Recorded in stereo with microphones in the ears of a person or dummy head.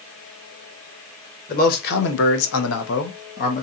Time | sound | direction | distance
1.5 | a man speaking | 45° left (ahead or behind) | 1.4 m